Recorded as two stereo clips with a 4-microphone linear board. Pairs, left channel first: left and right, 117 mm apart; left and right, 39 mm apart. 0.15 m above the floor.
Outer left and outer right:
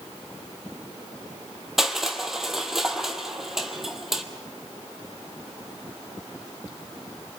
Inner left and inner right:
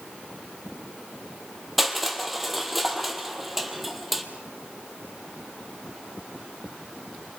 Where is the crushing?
5° right (ahead or behind), 1.5 m.